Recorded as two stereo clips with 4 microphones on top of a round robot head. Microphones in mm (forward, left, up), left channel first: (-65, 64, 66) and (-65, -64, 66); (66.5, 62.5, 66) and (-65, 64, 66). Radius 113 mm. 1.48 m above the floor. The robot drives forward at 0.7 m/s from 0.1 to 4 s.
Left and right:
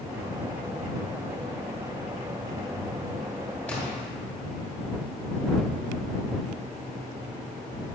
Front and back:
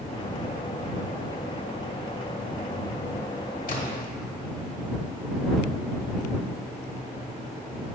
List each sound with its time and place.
3.7 s a splash: 10° left, 1.6 m